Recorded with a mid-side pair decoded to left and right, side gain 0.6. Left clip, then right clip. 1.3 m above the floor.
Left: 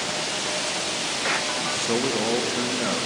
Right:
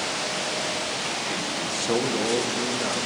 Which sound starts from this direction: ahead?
A man speaking, at 1.6 s.